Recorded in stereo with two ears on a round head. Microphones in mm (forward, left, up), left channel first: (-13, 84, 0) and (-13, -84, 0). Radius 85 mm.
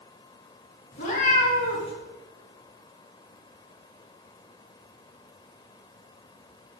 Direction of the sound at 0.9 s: 45° left (ahead or behind).